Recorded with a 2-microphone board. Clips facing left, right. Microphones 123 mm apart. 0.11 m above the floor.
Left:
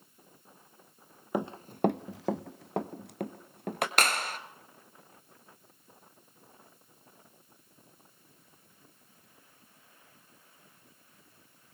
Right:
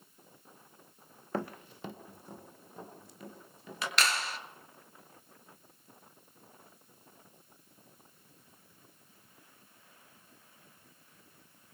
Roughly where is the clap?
Left.